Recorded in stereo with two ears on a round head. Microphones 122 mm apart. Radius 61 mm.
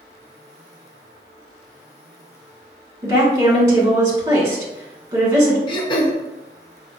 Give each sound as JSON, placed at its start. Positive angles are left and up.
{"t": 3.0, "sound": "a woman speaking", "side_deg": -25, "distance_m": 1.4}
{"t": 5.7, "sound": "throat clearing", "side_deg": 40, "distance_m": 0.7}